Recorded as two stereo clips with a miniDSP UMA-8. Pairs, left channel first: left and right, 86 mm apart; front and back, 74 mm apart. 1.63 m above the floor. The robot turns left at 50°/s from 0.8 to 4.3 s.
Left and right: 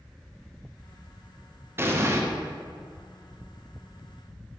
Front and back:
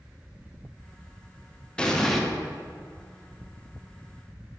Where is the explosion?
65° right, 0.8 m; by 2.2 s 85° right, 0.8 m.